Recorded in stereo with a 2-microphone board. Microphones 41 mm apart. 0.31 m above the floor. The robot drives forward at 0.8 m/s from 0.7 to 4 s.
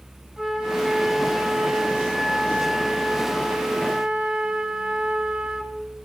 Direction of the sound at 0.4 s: 15° right (ahead or behind).